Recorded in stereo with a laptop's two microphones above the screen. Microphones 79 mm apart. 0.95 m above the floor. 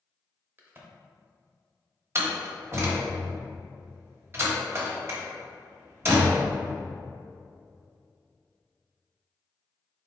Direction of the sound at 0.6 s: 30° right (ahead or behind).